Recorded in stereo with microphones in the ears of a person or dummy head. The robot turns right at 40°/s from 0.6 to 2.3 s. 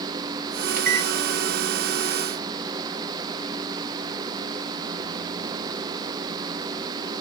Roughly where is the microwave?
Right.